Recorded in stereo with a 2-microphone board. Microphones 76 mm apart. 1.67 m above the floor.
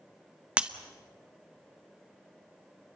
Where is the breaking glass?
15° right (ahead or behind), 0.9 m.